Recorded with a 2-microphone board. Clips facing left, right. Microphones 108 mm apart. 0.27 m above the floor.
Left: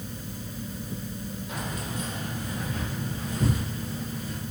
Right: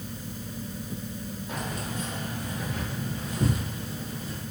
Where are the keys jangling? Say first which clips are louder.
Right 2 dB; 35° right (ahead or behind), 7 m.